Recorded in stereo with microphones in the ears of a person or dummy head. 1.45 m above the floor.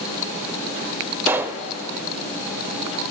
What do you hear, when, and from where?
1.3 s a pop: 15° right (ahead or behind), 0.6 m